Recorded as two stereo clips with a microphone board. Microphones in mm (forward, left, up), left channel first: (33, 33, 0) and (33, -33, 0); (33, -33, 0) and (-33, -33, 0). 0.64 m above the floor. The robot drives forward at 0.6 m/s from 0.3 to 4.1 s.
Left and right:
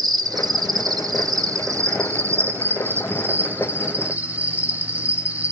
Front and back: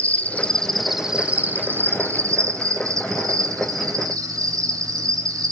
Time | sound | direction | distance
0.0 | an insect | 70° right | 0.9 m